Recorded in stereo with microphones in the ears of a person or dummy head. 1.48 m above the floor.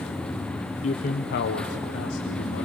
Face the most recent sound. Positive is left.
turn(degrees=70)  # may be behind; listen again after turning